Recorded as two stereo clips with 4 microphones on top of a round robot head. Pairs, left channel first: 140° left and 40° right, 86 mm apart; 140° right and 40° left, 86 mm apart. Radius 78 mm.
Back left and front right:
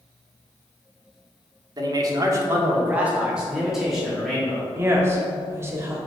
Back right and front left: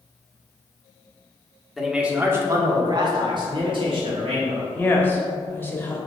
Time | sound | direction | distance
1.8 | a man speaking | 45° right | 1.4 m
4.7 | a woman speaking | 85° right | 1.6 m